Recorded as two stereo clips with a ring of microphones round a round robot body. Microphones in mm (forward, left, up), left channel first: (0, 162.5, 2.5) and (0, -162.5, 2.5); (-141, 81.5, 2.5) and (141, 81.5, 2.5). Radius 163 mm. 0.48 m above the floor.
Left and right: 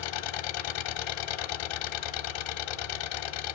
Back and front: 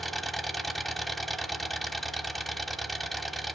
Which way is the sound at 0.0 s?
90° left.